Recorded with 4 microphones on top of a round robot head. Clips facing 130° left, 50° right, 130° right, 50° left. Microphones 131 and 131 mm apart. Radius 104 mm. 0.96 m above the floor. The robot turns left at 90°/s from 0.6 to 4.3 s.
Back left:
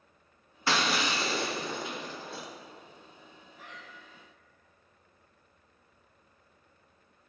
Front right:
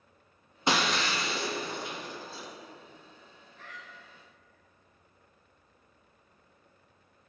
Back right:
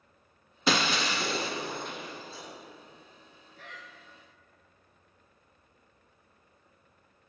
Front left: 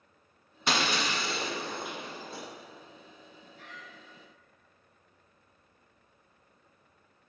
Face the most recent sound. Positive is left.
turn(degrees=150)